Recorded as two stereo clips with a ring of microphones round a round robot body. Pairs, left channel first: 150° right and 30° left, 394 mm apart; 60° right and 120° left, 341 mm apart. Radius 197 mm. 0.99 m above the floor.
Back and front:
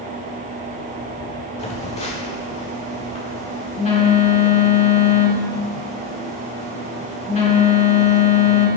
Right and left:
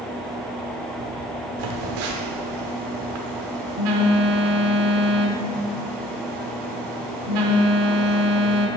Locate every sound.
1.6 s a phone buzzing: 135° left, 1.4 m